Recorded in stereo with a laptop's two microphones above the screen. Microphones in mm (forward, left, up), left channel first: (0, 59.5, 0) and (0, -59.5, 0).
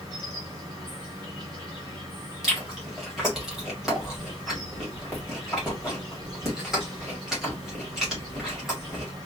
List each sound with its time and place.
0.0 s an insect: 35° right (ahead or behind), 2 m
2.4 s chewing: 5° right (ahead or behind), 1.7 m